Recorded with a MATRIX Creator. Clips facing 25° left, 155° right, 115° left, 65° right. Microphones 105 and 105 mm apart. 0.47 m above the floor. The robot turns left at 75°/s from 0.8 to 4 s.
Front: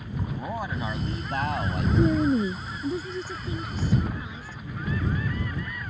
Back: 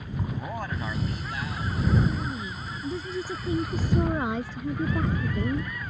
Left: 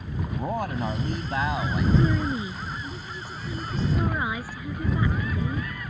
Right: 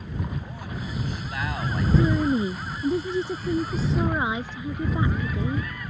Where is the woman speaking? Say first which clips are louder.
Front 7 dB, right 3 dB; 15° left; by 5.7 s 135° right.